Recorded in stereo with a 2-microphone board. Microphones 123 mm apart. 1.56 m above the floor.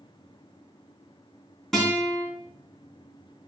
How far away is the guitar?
About 3.5 m.